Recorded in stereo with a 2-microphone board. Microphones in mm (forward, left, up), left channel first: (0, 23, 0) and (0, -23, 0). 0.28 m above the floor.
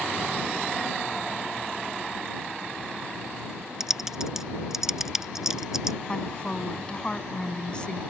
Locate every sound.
3.8 s typing on a keyboard: 10° right (ahead or behind)
6.1 s a woman speaking: 25° left (ahead or behind)